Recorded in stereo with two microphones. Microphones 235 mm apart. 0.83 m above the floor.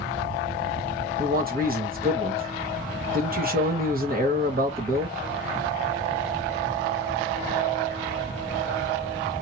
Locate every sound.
1.2 s a man speaking: 35° right (ahead or behind), 1.1 m